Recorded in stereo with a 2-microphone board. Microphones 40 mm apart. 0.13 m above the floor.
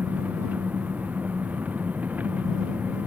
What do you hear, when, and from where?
0.0 s an engine running: 40° right (ahead or behind)